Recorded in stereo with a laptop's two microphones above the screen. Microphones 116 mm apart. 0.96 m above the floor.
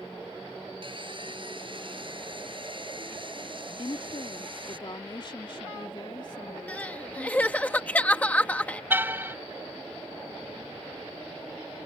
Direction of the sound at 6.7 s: 15° left (ahead or behind).